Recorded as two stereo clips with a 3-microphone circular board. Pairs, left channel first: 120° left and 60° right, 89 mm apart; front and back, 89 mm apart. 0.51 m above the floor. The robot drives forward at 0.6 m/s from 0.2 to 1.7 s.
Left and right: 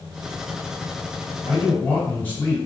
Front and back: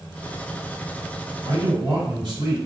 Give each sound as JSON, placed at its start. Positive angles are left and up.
{"t": 1.4, "sound": "a man speaking", "azimuth_deg": -170, "distance_m": 1.8}